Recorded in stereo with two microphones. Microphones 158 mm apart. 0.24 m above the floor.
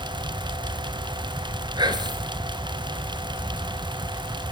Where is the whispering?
30° right (ahead or behind), 3.5 m.